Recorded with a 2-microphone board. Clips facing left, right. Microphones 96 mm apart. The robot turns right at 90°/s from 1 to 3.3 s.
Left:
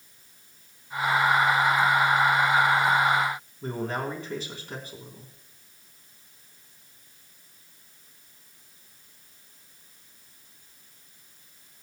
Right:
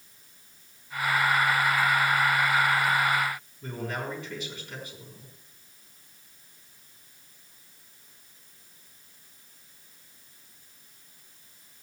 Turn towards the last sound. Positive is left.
turn(degrees=40)  # may be behind; listen again after turning